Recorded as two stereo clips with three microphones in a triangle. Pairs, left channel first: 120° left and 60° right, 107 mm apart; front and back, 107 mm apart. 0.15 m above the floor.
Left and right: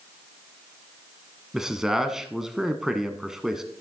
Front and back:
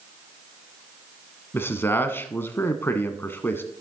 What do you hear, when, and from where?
1.5 s a man speaking: 20° left, 1.0 m